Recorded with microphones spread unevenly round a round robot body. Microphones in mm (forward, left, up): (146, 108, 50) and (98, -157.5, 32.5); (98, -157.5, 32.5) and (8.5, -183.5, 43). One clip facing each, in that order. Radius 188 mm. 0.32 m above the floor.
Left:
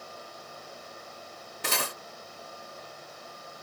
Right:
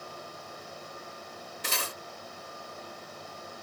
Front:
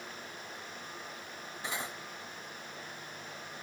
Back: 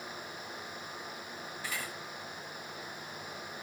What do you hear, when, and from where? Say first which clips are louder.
1.6 s cutlery clinking: left 4 dB, front 3 dB; 75° left